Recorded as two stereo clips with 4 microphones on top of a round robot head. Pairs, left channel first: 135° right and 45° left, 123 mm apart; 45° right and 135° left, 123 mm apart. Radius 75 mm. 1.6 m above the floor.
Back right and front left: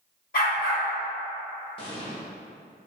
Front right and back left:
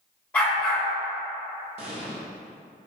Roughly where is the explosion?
Behind.